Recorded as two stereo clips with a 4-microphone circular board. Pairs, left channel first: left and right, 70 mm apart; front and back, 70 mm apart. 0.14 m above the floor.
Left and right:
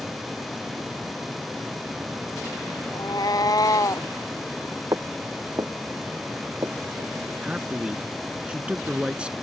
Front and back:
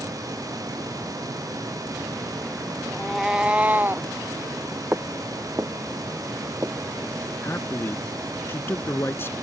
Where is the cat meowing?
85° left; by 4.1 s 125° left.